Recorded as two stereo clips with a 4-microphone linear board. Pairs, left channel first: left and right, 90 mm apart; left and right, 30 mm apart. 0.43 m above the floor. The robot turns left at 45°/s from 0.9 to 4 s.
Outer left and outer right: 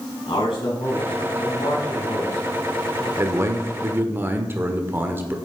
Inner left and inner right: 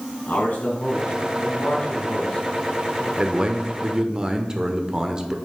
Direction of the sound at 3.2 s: 90° right.